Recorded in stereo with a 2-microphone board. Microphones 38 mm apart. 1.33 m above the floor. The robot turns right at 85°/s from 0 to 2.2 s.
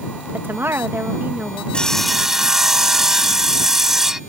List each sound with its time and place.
0.3 s a woman speaking: 125° right; by 1.6 s 15° right
1.7 s sawing: 150° left; by 4.2 s 170° right